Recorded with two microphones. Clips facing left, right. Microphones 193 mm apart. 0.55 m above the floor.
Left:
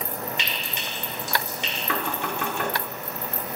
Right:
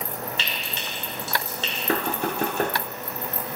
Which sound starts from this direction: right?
Knocking, at 1.9 s.